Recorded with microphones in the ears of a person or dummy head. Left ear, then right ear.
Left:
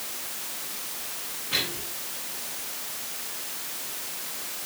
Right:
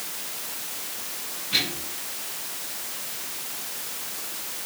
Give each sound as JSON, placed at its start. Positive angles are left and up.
{"t": 1.5, "sound": "a microwave", "side_deg": 25, "distance_m": 9.5}